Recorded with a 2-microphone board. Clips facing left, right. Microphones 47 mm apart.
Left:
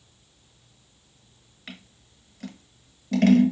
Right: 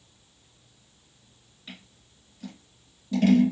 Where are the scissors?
70° left (ahead or behind), 0.9 m.